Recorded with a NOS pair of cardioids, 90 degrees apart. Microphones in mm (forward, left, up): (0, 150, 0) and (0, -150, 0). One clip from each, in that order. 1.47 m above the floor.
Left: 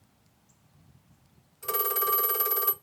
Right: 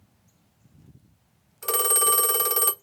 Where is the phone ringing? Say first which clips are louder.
Right 5 dB; 50° right, 1.0 m.